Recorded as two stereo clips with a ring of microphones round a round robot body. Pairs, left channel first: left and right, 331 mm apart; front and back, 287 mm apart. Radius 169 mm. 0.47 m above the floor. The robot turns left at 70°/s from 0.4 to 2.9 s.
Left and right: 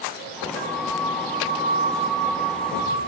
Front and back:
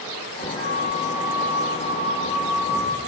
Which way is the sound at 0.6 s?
75° right.